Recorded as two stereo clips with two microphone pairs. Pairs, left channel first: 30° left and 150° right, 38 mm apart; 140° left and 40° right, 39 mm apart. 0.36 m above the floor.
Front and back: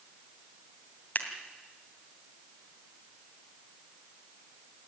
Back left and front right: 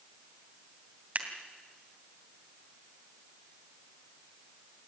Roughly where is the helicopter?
No helicopter in this recording.